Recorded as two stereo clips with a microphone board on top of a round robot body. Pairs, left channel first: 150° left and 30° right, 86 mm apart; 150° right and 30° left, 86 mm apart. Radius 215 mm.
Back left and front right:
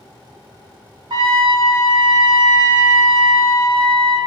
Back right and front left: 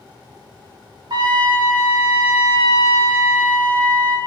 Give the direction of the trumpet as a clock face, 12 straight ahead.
12 o'clock.